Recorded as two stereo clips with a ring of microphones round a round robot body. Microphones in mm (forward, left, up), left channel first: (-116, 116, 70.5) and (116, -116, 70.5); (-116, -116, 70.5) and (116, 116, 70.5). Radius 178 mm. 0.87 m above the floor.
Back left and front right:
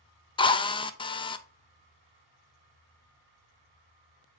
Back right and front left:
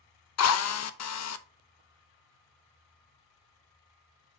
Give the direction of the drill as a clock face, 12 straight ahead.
5 o'clock.